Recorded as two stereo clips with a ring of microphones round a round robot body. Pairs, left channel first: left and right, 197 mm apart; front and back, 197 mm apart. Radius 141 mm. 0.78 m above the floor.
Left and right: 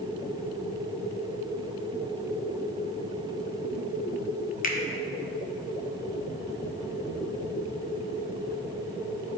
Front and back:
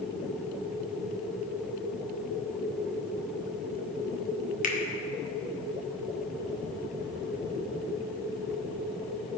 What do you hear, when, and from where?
4.6 s a finger snap: 45° left, 1.6 m